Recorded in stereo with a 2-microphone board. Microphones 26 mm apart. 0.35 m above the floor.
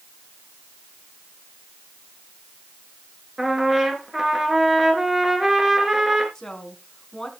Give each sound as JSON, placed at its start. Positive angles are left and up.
{"t": 3.4, "sound": "a trumpet", "side_deg": -20, "distance_m": 2.0}
{"t": 6.3, "sound": "a woman speaking", "side_deg": 20, "distance_m": 3.0}